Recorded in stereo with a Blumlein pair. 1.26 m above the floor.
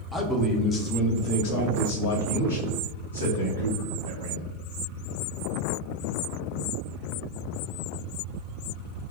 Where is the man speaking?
Straight ahead, 0.8 m; by 4.5 s 75° left, 2.5 m.